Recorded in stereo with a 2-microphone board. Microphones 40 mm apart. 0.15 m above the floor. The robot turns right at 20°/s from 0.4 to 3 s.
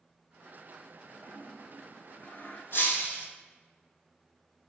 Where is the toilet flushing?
60° left (ahead or behind), 0.9 m; by 2.6 s 40° left (ahead or behind), 0.9 m.